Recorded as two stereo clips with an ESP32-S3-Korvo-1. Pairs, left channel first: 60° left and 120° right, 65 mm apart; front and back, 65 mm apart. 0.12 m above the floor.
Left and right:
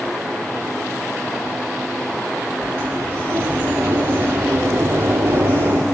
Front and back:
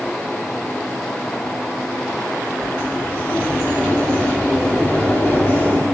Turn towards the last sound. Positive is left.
turn(degrees=-60)